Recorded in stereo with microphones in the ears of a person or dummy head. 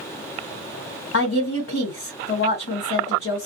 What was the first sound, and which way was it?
A woman speaking, 70° left (ahead or behind).